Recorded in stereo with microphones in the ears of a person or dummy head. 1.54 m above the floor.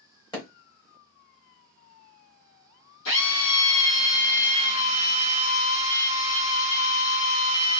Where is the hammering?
20° left (ahead or behind), 1.3 m.